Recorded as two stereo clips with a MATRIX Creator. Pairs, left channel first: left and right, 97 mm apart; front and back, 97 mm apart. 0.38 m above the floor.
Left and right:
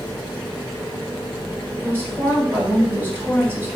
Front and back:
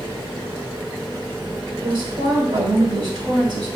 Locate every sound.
1.8 s a woman speaking: 155° right, 1.7 m